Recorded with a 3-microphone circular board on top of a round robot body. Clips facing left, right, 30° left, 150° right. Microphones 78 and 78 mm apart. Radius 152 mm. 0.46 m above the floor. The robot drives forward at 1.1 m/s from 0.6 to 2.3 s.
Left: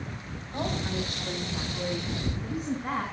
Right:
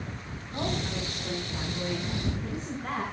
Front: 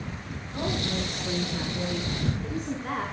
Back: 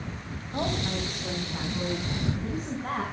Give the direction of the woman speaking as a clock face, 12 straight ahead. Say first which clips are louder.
Left 1 dB, even; 6 o'clock.